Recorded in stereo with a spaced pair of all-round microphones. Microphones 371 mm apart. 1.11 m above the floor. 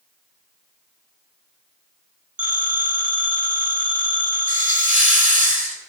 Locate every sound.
2.4 s a phone ringing: 60° right (ahead or behind), 4.5 m
4.5 s a hiss: 40° left (ahead or behind), 3 m